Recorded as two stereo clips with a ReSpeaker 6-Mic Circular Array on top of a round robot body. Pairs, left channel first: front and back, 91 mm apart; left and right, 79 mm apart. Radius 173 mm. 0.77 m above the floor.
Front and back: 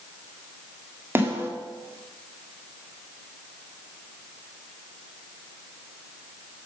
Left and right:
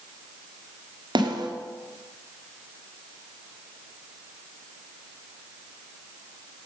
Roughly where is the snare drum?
Behind right.